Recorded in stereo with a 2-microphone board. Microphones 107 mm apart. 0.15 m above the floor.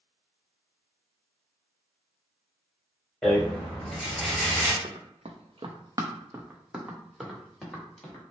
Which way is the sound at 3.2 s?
10° left (ahead or behind).